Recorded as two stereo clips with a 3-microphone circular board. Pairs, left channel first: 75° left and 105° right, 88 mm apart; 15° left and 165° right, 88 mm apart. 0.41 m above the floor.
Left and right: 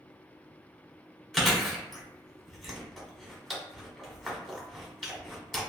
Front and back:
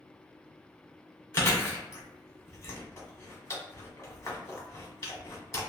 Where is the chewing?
15° right, 1.0 m.